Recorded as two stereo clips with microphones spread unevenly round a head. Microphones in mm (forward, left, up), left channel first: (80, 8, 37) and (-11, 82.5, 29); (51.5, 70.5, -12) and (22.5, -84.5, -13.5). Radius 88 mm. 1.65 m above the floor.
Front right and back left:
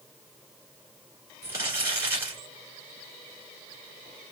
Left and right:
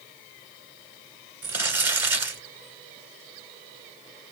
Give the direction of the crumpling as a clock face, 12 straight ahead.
5 o'clock.